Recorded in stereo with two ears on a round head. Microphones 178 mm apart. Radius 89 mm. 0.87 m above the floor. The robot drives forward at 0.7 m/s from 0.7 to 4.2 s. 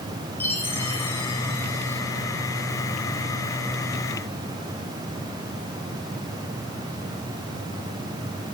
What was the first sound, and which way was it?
A chime, 10° left (ahead or behind).